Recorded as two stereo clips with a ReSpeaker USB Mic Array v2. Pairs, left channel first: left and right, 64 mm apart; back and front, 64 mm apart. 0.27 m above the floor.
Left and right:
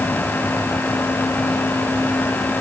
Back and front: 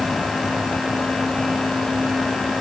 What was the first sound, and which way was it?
Only background noise.